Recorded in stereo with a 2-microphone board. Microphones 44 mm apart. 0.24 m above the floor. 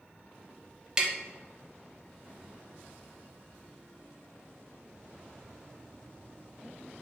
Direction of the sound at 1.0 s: 15° right (ahead or behind).